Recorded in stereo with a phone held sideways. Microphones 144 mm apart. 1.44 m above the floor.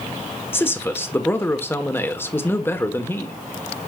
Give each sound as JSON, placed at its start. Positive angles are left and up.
{"t": 0.5, "sound": "a man speaking", "side_deg": 15, "distance_m": 1.1}